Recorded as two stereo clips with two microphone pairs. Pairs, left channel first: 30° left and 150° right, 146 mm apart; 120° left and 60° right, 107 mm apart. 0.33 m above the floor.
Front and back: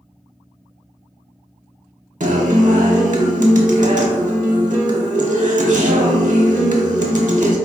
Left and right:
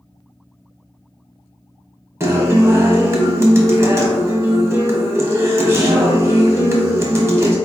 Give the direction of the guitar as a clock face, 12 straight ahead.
4 o'clock.